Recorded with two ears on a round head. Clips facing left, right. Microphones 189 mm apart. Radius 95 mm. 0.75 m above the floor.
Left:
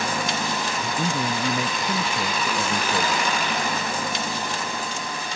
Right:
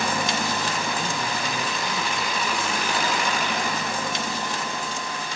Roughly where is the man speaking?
Left.